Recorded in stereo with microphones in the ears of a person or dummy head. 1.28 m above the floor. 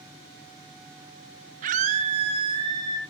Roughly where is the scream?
Right.